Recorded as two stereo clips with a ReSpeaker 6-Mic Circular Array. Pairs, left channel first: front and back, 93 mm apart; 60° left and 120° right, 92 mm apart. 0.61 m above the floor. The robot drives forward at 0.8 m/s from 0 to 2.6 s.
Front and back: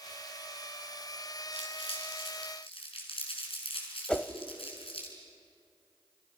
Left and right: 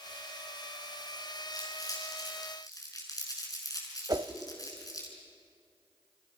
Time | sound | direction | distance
1.5 | crumpling | 10° left | 6.5 m
4.1 | a whoosh | 80° right | 0.9 m